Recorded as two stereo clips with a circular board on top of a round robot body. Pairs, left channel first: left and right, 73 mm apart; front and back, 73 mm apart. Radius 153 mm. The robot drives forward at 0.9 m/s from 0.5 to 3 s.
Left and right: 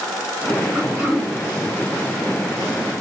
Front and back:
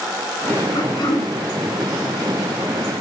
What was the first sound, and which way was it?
Throat clearing, 15° right.